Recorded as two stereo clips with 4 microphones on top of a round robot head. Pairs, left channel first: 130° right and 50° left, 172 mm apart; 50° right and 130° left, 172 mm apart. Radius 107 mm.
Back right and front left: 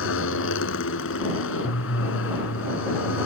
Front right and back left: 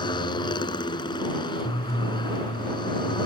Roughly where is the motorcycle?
Behind right.